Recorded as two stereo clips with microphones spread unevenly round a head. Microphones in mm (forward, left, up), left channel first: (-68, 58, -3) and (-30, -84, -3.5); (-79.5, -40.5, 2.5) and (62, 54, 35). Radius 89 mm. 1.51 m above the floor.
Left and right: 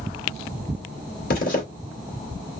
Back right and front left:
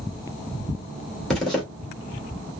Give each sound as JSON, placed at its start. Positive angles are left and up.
{"t": 1.3, "sound": "a zipper", "azimuth_deg": 125, "distance_m": 3.0}